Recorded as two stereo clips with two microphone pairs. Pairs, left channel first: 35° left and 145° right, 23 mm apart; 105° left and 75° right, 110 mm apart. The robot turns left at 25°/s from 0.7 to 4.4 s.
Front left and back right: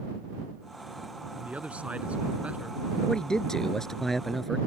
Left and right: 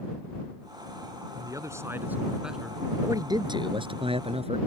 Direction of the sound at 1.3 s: 130° right.